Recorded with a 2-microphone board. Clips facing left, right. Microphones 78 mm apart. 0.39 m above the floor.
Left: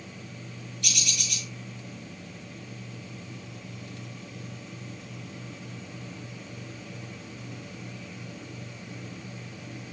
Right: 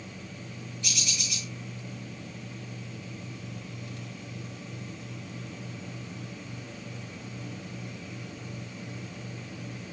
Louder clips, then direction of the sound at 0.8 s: Left 2 dB; 70° left (ahead or behind).